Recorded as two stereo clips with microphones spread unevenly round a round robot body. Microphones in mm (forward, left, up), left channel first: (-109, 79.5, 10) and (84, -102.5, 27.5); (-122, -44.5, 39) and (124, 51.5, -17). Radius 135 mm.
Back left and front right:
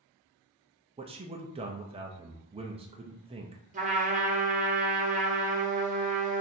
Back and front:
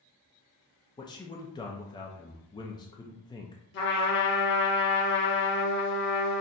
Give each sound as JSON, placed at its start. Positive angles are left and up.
{"t": 1.0, "sound": "a man speaking", "azimuth_deg": -80, "distance_m": 0.5}
{"t": 3.7, "sound": "a trumpet", "azimuth_deg": -105, "distance_m": 1.1}